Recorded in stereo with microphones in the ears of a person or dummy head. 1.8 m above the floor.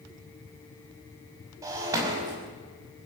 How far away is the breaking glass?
About 6 m.